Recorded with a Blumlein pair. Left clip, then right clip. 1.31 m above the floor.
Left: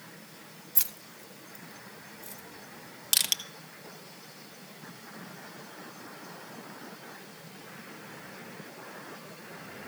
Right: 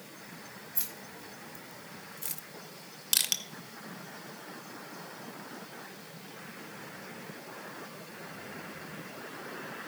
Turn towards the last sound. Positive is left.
turn(degrees=10)